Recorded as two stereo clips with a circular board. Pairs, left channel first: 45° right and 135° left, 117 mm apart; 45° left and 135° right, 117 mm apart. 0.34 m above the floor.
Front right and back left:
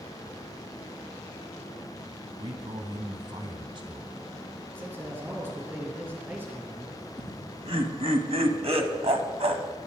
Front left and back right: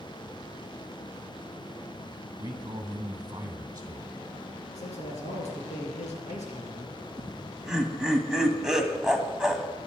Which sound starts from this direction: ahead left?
A man speaking, at 4.8 s.